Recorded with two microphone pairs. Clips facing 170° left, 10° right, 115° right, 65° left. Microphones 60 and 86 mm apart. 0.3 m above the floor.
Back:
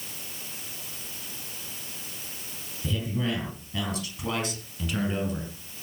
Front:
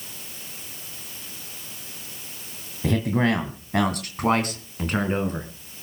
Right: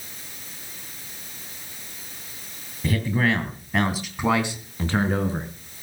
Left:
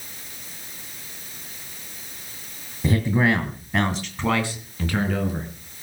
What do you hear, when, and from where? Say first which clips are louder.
2.8 s a man speaking: front 8 dB, left 3 dB; 5° left, 2.5 m; by 5.5 s 60° right, 4 m